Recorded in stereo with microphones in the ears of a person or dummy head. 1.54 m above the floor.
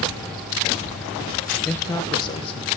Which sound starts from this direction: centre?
A man speaking, at 1.6 s.